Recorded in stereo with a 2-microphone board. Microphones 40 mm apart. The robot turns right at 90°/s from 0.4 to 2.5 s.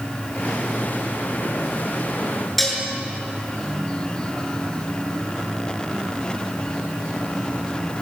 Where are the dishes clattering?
5° left (ahead or behind), 7.5 m.